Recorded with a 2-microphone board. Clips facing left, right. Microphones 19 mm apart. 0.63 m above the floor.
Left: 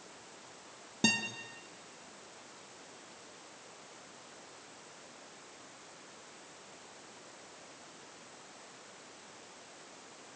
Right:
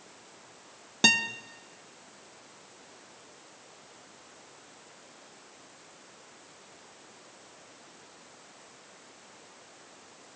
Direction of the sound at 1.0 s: 40° right (ahead or behind).